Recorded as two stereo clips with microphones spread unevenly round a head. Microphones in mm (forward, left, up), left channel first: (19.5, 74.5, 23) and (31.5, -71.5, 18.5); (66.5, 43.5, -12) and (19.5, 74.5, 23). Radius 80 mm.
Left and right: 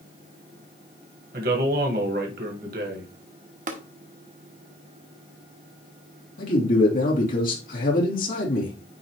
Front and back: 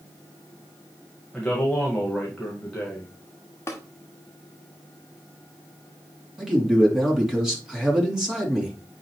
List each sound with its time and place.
1.3 s a man speaking: 120° right, 1.5 m
3.7 s tapping: 115° right, 1.1 m
6.4 s a man speaking: 65° left, 3 m